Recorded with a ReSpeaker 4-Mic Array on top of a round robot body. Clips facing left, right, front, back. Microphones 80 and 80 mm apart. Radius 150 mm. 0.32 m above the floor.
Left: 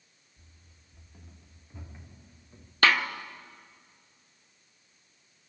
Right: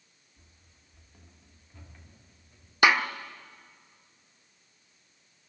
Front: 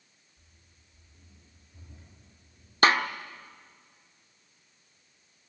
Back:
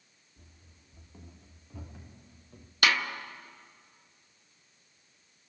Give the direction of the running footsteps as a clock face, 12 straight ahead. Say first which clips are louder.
Left 1 dB, back 8 dB; 6 o'clock.